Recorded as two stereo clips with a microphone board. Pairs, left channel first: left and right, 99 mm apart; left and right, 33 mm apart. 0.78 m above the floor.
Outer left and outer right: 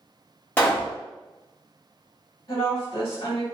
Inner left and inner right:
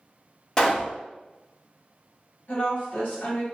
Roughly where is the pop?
Centre.